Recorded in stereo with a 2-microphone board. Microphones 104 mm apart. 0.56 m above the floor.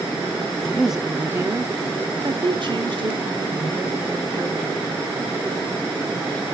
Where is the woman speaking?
10° left (ahead or behind), 0.6 m; by 5.0 s 65° right (ahead or behind), 2 m.